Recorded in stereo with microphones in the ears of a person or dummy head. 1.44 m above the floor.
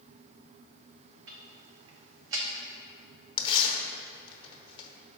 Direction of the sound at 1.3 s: 70° right (ahead or behind).